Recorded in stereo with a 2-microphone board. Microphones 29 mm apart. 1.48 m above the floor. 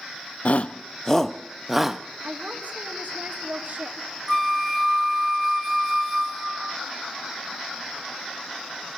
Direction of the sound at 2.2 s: 50° right (ahead or behind).